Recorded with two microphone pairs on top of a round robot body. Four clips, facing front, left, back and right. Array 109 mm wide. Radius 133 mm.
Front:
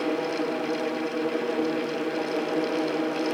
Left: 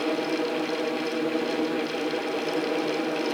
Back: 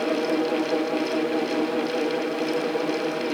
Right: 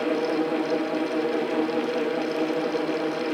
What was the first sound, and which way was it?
Only background noise.